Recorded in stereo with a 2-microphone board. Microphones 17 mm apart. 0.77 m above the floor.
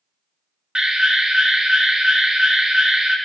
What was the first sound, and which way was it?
An alarm, 35° right (ahead or behind).